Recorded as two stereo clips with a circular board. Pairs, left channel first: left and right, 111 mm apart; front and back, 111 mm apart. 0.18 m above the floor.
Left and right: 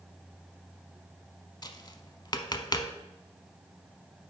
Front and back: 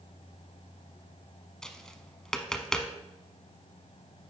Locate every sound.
1.6 s tapping: 80° left, 0.6 m